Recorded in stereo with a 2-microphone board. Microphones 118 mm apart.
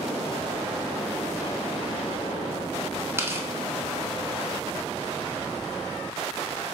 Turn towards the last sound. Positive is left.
turn(degrees=-20)  # may be behind; listen again after turning